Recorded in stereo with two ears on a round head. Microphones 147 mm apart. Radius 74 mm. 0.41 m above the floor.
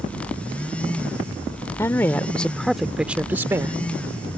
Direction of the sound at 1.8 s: 15° left (ahead or behind).